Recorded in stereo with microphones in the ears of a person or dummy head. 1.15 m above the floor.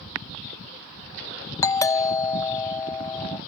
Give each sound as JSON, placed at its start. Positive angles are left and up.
{"t": 1.6, "sound": "a doorbell", "side_deg": 15}